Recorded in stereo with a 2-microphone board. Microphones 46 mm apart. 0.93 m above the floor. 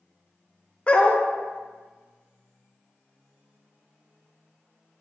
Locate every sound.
0.9 s a dog barking: 25° left (ahead or behind), 0.7 m